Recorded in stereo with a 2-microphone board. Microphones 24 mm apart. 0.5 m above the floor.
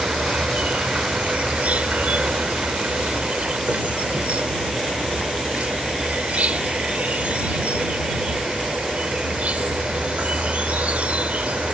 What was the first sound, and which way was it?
An insect, 65° right (ahead or behind).